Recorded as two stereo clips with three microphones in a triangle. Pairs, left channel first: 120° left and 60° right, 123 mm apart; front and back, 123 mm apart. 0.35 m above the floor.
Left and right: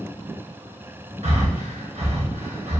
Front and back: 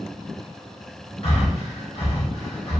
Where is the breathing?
30° right, 1.8 m.